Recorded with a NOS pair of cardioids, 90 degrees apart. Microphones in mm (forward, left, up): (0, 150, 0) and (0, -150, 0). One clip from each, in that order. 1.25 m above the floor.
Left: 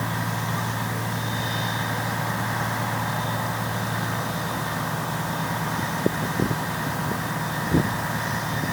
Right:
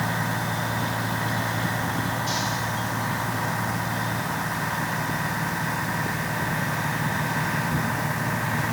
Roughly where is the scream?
I don't hear a scream.